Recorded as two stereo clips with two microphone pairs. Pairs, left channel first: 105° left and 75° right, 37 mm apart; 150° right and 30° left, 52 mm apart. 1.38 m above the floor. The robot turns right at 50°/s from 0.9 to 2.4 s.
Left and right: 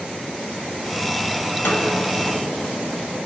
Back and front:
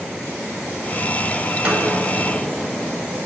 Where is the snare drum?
95° left, 5 m; by 2.0 s 115° left, 5 m.